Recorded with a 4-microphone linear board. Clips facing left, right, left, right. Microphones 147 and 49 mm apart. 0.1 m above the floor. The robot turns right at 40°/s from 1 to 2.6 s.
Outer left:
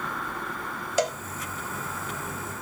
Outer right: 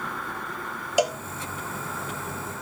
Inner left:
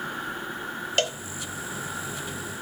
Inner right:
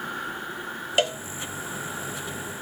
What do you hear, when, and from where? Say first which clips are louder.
1.0 s a cowbell: outer right 3 dB, inner right 3 dB; 10° right (ahead or behind), 1.3 m; by 1.2 s 5° right (ahead or behind), 1.3 m